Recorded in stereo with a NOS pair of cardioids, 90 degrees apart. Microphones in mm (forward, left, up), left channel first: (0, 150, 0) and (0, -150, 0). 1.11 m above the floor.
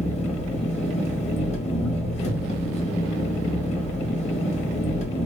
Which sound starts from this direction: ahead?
An engine running, at 0.0 s.